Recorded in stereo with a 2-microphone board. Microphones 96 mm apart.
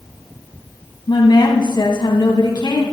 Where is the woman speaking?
55° left (ahead or behind), 2.5 m.